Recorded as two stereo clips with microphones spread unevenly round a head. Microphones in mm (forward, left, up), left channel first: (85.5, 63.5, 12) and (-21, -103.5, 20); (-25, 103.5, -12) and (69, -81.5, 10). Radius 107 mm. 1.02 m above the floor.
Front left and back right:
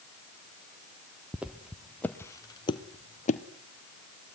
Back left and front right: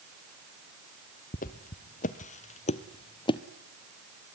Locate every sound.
1.3 s footsteps: 160° left, 1.3 m; by 3.4 s 55° left, 1.1 m